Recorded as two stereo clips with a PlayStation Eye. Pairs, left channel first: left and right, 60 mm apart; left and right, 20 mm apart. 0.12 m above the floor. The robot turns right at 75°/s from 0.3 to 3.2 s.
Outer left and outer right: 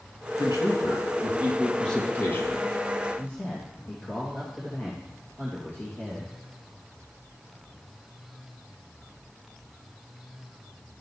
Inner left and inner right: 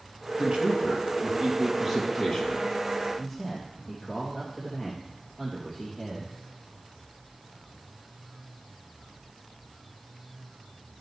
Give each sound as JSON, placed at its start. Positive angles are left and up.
{"t": 0.4, "sound": "a man speaking", "azimuth_deg": -100, "distance_m": 2.5}
{"t": 3.2, "sound": "a man speaking", "side_deg": 50, "distance_m": 3.0}